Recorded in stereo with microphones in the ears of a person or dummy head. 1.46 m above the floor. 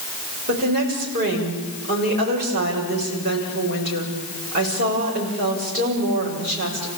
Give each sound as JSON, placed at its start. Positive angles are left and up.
{"t": 0.5, "sound": "a woman speaking", "side_deg": -50, "distance_m": 6.5}